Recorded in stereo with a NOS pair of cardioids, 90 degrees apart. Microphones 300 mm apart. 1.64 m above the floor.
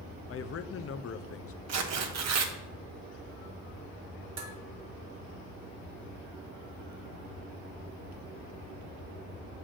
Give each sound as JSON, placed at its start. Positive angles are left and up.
{"t": 0.3, "sound": "a man speaking", "azimuth_deg": 50, "distance_m": 0.8}
{"t": 1.7, "sound": "tearing paper", "azimuth_deg": -60, "distance_m": 1.6}
{"t": 4.4, "sound": "dishes clattering", "azimuth_deg": -60, "distance_m": 2.5}